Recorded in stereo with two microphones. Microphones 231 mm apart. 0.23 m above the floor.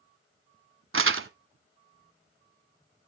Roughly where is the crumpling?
Right.